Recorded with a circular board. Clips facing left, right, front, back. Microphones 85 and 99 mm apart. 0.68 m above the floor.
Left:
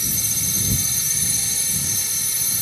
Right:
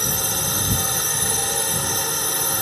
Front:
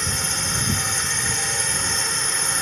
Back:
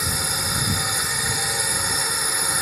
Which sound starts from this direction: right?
A drone, at 0.0 s.